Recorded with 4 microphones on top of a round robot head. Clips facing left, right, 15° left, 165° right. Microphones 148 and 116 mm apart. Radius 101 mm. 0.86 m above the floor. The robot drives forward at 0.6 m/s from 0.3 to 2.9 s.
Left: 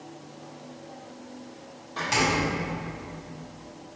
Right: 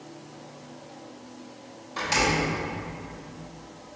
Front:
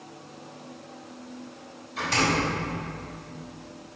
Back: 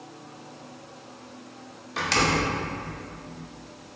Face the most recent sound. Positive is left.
turn(degrees=-175)